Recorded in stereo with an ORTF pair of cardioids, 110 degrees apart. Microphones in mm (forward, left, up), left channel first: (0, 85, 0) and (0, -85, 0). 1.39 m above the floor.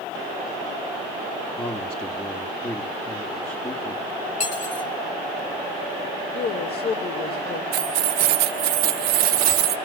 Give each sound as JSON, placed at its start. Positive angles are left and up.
{"t": 1.6, "sound": "a man speaking", "azimuth_deg": 15, "distance_m": 1.9}
{"t": 4.4, "sound": "cutlery clinking", "azimuth_deg": 50, "distance_m": 3.0}
{"t": 6.3, "sound": "a woman speaking", "azimuth_deg": 70, "distance_m": 3.5}
{"t": 7.7, "sound": "keys jangling", "azimuth_deg": -70, "distance_m": 1.0}